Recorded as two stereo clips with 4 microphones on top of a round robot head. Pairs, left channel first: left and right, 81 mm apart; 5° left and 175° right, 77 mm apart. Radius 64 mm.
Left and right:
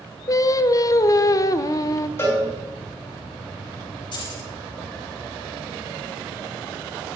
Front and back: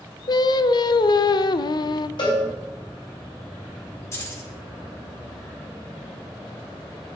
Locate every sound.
0.3 s singing: 40° left, 0.5 m
2.2 s a cowbell: 30° left, 4 m
4.1 s keys jangling: 60° left, 3 m